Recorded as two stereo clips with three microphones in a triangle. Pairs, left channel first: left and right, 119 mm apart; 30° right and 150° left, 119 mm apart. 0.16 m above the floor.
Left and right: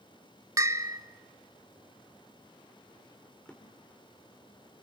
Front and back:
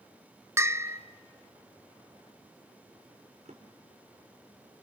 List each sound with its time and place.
0.6 s a bell: 145° right, 0.8 m
3.5 s a drawer: 170° left, 4 m